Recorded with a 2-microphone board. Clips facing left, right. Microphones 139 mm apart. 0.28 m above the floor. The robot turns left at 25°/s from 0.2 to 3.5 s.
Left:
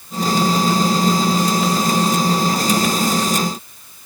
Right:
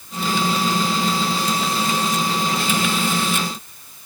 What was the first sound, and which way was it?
Only background noise.